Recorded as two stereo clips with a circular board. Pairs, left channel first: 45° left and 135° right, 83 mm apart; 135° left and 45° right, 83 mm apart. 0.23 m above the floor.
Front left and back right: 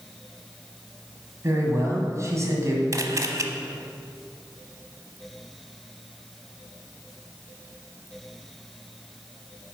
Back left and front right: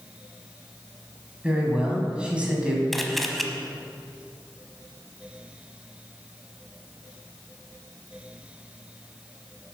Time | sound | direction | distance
1.4 | a man speaking | 115° right | 1.9 m
2.9 | a camera shutter | 135° right | 0.7 m